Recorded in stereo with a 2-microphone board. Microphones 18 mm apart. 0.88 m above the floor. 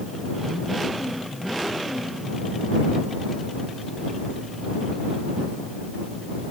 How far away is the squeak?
I don't hear a squeak.